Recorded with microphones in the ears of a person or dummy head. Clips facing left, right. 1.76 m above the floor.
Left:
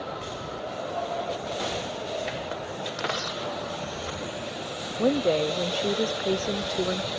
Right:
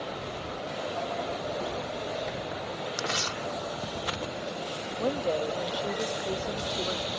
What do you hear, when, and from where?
3.0 s tearing paper: 50° right (ahead or behind)
5.0 s a woman speaking: 30° left (ahead or behind)